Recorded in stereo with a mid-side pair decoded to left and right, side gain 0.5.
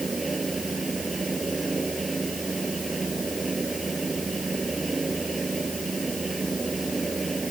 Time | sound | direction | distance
0.0 | a fan | 20° right | ?